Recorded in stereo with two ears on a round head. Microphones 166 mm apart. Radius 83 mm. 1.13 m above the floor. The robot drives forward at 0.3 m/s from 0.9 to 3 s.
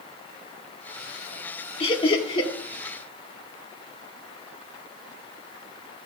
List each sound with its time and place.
1.8 s laughter: 30° left (ahead or behind), 2 m